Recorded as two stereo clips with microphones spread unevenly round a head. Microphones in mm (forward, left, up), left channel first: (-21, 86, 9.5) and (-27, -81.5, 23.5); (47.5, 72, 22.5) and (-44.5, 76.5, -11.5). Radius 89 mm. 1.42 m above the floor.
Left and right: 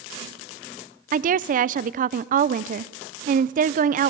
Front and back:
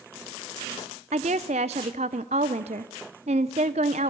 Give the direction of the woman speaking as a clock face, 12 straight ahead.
5 o'clock.